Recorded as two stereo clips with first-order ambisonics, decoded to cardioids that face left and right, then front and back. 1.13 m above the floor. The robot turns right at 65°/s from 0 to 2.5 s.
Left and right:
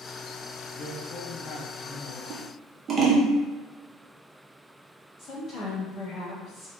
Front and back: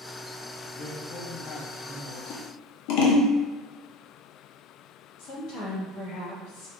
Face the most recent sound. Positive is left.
turn(degrees=30)